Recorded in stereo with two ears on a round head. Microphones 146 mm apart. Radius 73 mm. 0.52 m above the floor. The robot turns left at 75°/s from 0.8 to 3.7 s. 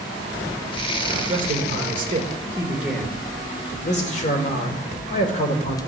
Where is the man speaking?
55° right, 1.7 m; by 5.8 s 125° left, 1.7 m.